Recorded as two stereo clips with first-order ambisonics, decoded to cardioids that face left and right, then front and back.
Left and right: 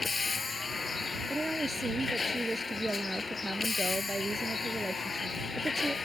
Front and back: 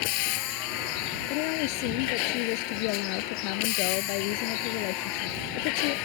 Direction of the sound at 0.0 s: 15° left.